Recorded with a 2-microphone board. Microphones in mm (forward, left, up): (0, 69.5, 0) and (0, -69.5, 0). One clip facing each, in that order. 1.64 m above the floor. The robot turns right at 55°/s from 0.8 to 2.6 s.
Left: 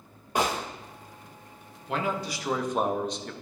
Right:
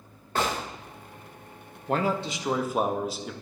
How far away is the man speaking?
About 0.7 m.